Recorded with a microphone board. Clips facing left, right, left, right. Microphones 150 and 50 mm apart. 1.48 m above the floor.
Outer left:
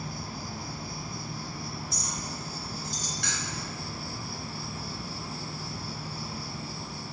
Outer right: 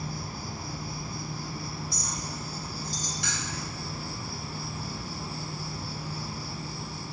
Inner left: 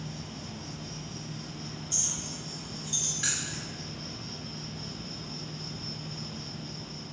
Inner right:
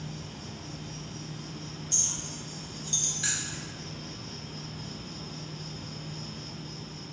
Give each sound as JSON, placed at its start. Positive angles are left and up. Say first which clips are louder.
{"t": 0.0, "sound": "an insect", "louder": "outer right 1 dB, even", "side_deg": 65, "distance_m": 2.5}
{"t": 1.9, "sound": "a clink", "louder": "even, even", "side_deg": 20, "distance_m": 1.4}
{"t": 3.2, "sound": "keys jangling", "louder": "outer right 1 dB, even", "side_deg": 55, "distance_m": 1.9}